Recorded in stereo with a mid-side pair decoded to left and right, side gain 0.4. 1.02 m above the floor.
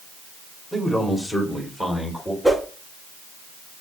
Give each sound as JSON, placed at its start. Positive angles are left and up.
{"t": 0.7, "sound": "a man speaking", "azimuth_deg": 0, "distance_m": 2.0}
{"t": 2.4, "sound": "a whoosh", "azimuth_deg": 0, "distance_m": 2.0}